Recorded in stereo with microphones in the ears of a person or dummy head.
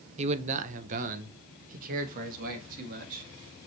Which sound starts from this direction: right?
A man speaking, at 0.2 s.